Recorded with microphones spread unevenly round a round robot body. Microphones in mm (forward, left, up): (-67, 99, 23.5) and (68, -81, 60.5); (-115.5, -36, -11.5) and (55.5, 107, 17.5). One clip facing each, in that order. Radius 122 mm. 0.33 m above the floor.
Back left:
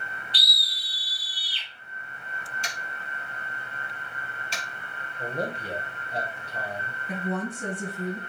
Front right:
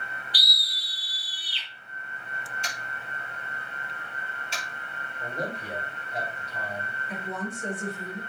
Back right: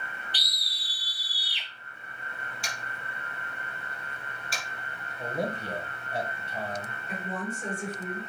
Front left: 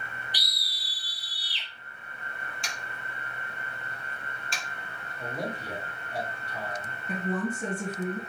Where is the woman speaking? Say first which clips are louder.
Back left 5 dB, front left 6 dB; 95° left, 4.5 m.